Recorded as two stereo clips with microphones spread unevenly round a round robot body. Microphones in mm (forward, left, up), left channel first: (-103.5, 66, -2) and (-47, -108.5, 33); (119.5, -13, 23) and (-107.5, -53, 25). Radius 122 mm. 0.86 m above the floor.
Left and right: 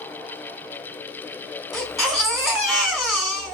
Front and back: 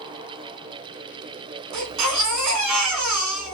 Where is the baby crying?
165° right, 1.1 m.